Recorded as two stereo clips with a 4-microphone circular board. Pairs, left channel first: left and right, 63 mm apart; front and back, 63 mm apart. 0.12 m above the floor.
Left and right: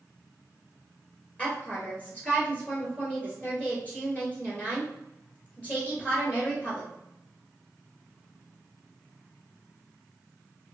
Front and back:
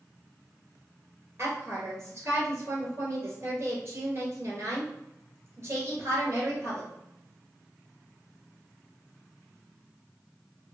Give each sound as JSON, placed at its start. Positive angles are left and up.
{"t": 1.4, "sound": "a woman speaking", "azimuth_deg": 150, "distance_m": 1.7}